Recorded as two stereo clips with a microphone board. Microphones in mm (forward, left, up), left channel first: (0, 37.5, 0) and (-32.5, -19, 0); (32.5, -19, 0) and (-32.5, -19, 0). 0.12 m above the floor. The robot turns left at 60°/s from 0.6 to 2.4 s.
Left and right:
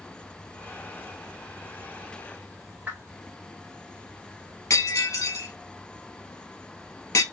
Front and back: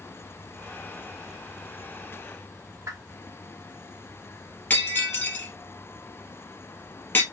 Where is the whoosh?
175° right, 1.2 m.